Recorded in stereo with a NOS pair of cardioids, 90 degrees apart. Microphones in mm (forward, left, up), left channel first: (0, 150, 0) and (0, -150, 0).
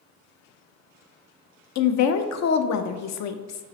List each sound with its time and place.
1.8 s a woman speaking: 65° left, 0.5 m